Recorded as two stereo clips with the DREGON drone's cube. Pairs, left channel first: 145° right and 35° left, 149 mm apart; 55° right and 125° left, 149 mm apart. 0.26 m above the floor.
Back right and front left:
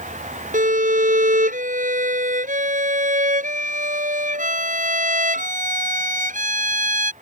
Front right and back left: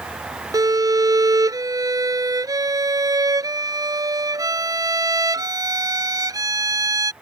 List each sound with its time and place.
0.5 s a violin: 60° left